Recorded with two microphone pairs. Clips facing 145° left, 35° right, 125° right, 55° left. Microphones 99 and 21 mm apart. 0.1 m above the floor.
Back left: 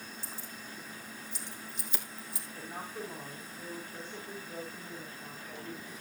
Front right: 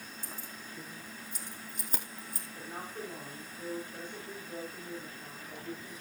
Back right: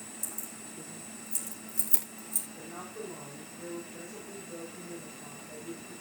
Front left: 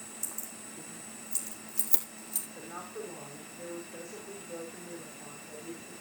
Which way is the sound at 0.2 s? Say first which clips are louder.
Even, even; 5° left.